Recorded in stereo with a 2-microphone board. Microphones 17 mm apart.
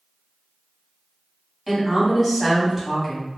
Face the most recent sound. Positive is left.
turn(degrees=-10)  # may be behind; listen again after turning